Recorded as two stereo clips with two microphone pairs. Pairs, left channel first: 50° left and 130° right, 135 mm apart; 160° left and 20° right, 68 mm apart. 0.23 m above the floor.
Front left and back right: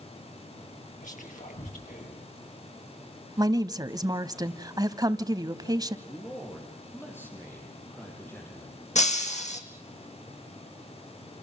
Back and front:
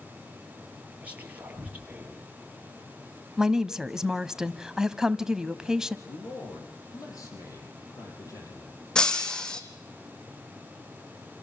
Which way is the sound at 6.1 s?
125° left.